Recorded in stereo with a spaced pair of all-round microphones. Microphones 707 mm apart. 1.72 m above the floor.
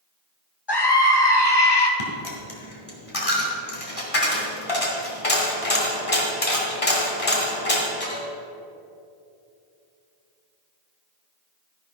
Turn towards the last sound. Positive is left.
turn(degrees=50)  # may be behind; listen again after turning